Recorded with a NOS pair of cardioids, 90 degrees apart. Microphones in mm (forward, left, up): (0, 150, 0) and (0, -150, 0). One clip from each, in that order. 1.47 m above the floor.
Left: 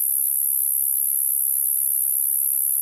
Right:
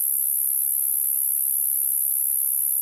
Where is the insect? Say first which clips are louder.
Left 1 dB; 25° left, 0.8 m.